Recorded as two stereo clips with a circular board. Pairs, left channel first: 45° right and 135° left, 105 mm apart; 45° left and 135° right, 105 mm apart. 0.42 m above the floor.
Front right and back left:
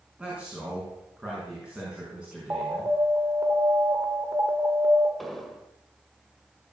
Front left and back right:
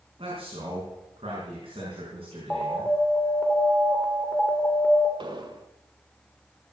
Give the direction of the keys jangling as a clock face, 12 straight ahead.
No keys jangling in this recording.